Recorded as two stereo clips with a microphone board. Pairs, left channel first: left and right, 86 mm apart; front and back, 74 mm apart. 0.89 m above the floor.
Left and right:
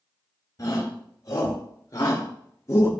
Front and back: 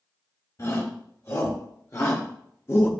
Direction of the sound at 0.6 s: 40° left.